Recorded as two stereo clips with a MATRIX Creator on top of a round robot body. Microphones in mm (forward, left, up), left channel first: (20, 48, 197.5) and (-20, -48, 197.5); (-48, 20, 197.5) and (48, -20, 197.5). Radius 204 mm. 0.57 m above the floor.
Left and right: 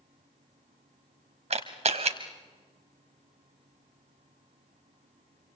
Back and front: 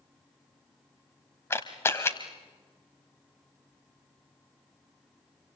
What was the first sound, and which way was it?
A camera shutter, 135° right.